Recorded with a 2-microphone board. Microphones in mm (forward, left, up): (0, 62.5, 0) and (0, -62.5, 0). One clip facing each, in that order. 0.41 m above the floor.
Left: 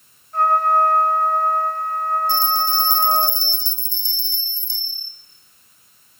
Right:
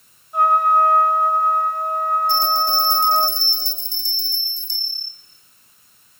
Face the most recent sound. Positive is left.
turn(degrees=-65)  # may be behind; listen again after turning